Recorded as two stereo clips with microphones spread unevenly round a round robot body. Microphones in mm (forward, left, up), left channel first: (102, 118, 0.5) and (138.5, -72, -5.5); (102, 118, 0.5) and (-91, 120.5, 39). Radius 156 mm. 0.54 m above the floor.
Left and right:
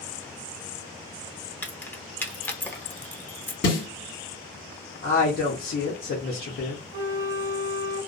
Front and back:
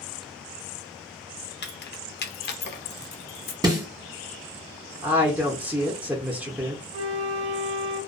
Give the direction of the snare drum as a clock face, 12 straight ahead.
8 o'clock.